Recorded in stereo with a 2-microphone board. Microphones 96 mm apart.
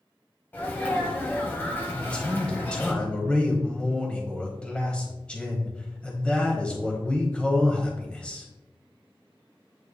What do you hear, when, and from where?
0.5 s a sneeze: 20° left (ahead or behind), 1.2 m
1.9 s a man speaking: 10° left (ahead or behind), 1.1 m